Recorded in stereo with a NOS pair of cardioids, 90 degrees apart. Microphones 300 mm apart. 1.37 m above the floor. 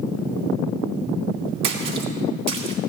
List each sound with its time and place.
1.6 s a splash: 65° right, 2.5 m